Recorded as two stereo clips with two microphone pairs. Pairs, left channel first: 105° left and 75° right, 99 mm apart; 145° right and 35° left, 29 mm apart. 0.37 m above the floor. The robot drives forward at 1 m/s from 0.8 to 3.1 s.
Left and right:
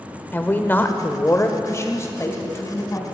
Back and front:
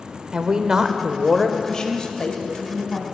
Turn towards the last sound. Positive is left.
turn(degrees=170)